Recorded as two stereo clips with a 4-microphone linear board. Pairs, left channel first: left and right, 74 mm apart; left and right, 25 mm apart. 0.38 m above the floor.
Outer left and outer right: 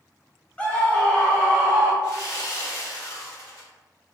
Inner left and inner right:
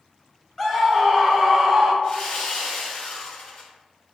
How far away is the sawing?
About 1.8 m.